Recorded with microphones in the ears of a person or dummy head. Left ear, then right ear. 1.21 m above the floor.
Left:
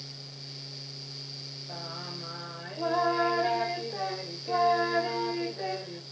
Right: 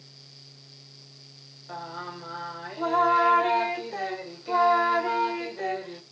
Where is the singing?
30° right (ahead or behind), 0.8 m.